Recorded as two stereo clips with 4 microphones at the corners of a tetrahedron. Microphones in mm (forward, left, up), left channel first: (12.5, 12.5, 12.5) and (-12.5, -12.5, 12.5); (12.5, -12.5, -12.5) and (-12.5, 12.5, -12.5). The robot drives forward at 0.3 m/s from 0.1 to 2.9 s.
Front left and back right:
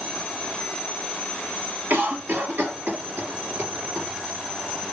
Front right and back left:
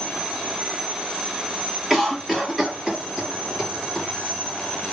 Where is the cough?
135° right, 1.5 m; by 4.1 s 145° right, 1.7 m.